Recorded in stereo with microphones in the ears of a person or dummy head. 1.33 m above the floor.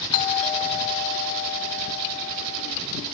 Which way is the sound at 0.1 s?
30° left (ahead or behind).